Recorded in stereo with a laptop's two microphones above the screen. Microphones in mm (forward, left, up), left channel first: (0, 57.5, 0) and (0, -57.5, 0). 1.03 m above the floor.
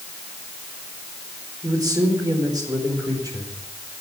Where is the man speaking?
35° right (ahead or behind), 4 m.